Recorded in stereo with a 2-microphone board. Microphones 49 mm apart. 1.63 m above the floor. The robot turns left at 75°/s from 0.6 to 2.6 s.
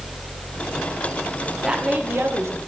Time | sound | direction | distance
1.6 | a woman speaking | 15° right | 1.3 m